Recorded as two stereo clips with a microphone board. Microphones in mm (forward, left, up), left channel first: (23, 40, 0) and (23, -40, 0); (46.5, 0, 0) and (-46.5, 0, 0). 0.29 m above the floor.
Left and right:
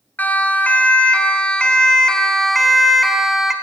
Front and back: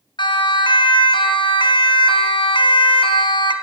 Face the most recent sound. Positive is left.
turn(degrees=-5)